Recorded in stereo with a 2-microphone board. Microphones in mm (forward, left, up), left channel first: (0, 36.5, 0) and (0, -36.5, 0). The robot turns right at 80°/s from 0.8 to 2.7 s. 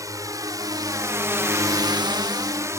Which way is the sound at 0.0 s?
50° right (ahead or behind).